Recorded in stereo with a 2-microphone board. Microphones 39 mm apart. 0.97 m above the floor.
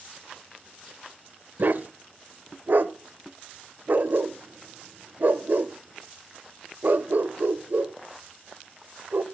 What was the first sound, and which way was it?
A dog barking, 60° right (ahead or behind).